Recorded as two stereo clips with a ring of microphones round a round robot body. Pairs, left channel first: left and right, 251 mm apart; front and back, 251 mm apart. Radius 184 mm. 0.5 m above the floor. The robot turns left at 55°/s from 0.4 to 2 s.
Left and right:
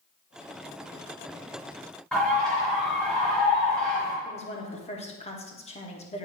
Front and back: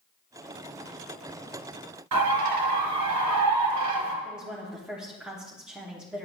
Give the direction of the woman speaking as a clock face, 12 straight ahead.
9 o'clock.